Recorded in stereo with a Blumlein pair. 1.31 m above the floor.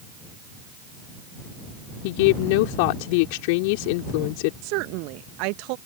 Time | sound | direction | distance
2.0 | a woman speaking | 45° left | ?
4.6 | a woman speaking | 45° right | ?